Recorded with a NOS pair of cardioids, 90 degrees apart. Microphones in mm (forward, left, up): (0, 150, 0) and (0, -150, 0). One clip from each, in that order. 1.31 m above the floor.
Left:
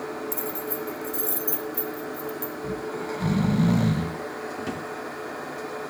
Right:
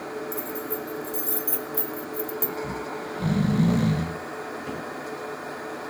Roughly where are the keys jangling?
Ahead left.